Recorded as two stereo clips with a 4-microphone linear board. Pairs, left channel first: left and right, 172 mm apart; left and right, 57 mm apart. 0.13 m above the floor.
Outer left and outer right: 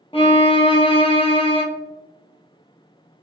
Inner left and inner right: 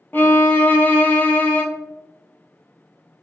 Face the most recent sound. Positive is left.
turn(degrees=30)  # may be behind; listen again after turning